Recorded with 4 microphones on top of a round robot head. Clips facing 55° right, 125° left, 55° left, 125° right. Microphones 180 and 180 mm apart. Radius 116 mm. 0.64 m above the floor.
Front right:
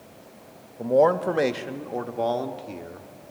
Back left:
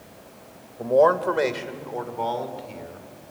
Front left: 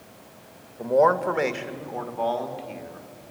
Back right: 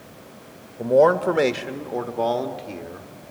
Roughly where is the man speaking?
Behind right.